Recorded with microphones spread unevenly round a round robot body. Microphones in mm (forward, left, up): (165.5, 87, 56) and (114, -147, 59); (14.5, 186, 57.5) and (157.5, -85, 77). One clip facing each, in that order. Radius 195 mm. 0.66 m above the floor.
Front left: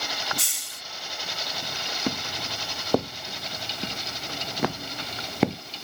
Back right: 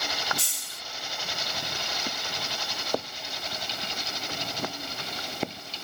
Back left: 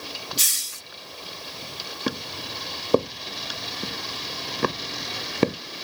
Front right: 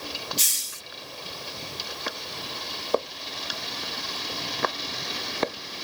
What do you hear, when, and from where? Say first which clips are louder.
0.4 s a hiss: even, even; 115° left
2.1 s footsteps: front left 7 dB, back left 10 dB; 70° left; by 5.6 s 60° left